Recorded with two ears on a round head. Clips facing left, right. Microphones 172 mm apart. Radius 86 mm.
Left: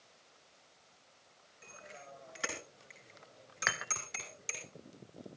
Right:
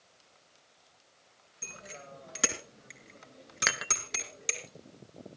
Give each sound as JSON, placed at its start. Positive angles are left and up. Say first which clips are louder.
{"t": 1.6, "sound": "a bicycle bell", "louder": "right 4 dB", "side_deg": -60, "distance_m": 3.5}
{"t": 3.7, "sound": "dishes clattering", "louder": "right 4 dB", "side_deg": -45, "distance_m": 1.1}